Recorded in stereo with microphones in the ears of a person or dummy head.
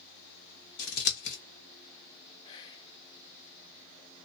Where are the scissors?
60° left (ahead or behind), 0.7 m.